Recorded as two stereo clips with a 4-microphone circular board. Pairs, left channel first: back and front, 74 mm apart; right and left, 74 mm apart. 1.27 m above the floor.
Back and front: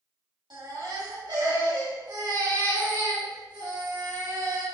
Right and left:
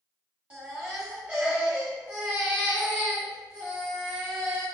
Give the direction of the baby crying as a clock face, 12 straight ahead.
11 o'clock.